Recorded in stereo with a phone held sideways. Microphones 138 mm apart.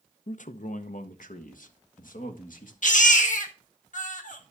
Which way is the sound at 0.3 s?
65° left (ahead or behind).